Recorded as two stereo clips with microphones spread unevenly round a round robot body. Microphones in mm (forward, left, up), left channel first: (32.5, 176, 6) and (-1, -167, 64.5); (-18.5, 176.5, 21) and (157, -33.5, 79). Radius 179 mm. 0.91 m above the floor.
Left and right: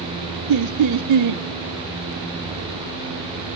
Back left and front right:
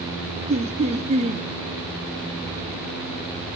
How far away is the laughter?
About 0.8 m.